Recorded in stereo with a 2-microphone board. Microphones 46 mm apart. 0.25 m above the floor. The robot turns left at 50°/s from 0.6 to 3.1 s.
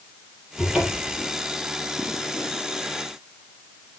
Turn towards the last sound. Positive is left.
turn(degrees=-130)